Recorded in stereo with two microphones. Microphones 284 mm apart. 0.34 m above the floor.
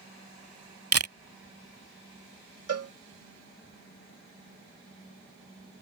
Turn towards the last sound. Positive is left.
turn(degrees=-55)  # may be behind; listen again after turning